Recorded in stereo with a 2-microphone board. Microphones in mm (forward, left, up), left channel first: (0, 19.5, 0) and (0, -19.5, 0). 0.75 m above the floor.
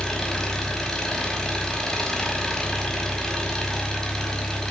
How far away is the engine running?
About 5 m.